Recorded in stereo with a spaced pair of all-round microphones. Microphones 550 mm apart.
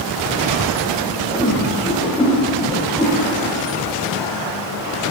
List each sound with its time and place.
1.3 s a whoosh: 10° left (ahead or behind), 1.8 m